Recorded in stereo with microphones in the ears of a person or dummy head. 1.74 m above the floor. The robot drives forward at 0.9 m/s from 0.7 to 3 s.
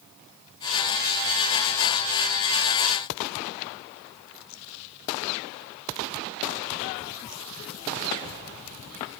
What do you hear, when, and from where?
Only background noise.